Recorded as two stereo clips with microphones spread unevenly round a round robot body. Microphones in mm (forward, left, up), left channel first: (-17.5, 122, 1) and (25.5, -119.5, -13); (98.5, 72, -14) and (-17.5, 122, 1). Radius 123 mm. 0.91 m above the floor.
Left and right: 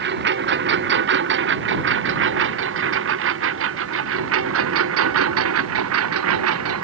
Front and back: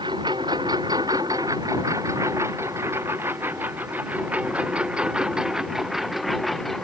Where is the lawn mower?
130° right; by 6.8 s 110° right.